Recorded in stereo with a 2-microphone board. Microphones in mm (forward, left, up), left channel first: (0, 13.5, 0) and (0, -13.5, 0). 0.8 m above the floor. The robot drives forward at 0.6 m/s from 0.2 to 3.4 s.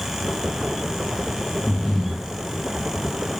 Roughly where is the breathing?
Centre.